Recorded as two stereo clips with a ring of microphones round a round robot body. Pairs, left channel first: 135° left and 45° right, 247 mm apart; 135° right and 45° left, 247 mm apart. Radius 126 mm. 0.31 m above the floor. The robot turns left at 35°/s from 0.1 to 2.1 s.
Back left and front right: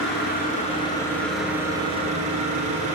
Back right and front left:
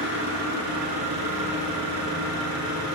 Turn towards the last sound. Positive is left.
turn(degrees=20)